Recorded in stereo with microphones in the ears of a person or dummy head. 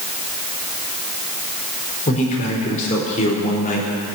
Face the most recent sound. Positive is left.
turn(degrees=45)  # may be behind; listen again after turning